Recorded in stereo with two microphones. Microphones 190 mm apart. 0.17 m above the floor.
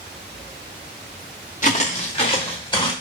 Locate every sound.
1.6 s footsteps: 40° left (ahead or behind), 1.4 m; by 2.9 s 25° left (ahead or behind), 1.8 m